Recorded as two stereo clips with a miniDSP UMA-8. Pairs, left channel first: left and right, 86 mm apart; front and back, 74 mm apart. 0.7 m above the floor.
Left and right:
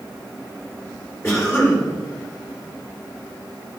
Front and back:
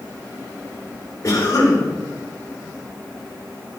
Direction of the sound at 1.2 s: 35° left.